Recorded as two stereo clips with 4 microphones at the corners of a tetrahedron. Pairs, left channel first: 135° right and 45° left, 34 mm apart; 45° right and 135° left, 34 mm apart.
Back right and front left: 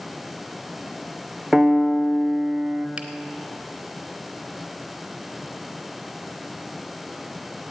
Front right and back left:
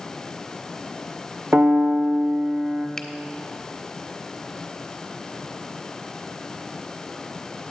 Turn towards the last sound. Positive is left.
turn(degrees=25)